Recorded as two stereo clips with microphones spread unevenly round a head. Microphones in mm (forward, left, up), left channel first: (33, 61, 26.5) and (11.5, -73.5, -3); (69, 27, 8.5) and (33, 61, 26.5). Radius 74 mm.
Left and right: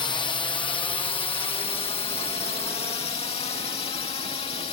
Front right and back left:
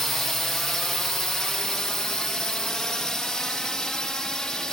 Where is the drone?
25° left; by 4.7 s 35° left.